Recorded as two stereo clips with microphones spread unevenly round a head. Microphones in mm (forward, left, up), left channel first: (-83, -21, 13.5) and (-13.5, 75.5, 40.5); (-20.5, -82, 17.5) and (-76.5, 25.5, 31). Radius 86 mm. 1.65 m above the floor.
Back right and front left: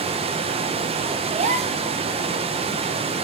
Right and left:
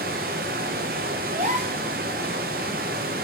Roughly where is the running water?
Left.